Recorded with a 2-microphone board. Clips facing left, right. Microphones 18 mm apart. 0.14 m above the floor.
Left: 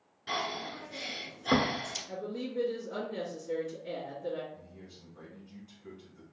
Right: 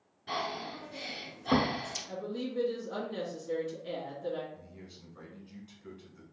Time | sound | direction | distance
0.3 | breathing | 50° left (ahead or behind) | 1.1 m
2.1 | a woman speaking | 25° right (ahead or behind) | 1.8 m
4.5 | a man speaking | 25° right (ahead or behind) | 1.1 m